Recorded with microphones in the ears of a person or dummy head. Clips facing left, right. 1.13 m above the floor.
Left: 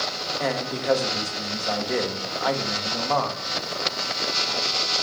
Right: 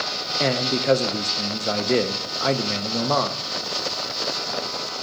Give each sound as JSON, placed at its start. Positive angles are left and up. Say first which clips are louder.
{"t": 0.4, "sound": "a man speaking", "louder": "right 4 dB", "side_deg": -35, "distance_m": 0.9}